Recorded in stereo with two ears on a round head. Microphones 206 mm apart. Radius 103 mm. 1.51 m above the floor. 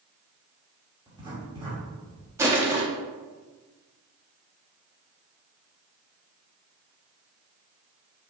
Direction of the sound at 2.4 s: 10° right (ahead or behind).